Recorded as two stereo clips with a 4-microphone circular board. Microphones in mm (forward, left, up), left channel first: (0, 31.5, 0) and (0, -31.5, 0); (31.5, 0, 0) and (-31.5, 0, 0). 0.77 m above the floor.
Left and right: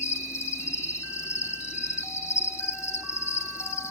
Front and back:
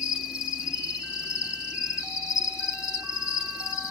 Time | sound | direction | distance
0.0 | an insect | 100° left | 2.5 m